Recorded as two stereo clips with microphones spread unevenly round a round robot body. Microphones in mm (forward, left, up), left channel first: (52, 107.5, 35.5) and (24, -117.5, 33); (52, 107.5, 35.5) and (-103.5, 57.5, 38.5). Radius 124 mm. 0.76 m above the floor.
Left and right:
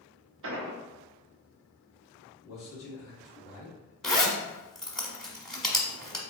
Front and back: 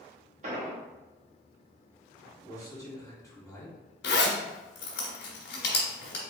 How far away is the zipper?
About 1.2 m.